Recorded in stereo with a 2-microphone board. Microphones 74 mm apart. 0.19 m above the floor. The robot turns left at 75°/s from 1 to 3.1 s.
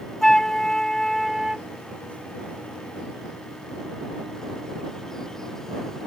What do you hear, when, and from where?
0.2 s a flute: 5° left (ahead or behind); by 1.7 s 10° right (ahead or behind)